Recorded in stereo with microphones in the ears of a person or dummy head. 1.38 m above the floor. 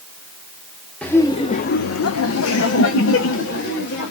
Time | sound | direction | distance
1.0 | laughter | 10° left (ahead or behind) | 0.8 m